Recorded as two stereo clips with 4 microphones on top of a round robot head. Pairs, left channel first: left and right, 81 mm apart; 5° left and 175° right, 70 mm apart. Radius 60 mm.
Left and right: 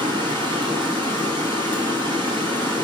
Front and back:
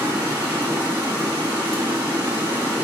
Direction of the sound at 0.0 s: 110° right.